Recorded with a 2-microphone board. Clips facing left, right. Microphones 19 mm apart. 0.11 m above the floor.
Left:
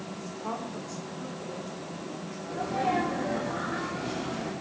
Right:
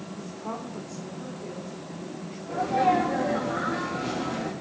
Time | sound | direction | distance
0.1 | a woman speaking | 35° left (ahead or behind) | 7.5 m
2.5 | a sneeze | 15° right (ahead or behind) | 4.5 m